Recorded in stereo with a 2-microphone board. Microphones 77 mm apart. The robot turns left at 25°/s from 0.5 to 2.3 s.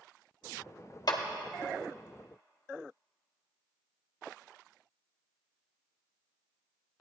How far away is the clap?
About 1.2 m.